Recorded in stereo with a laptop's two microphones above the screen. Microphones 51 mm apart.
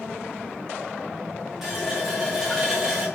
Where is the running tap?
5° right (ahead or behind), 1.0 m.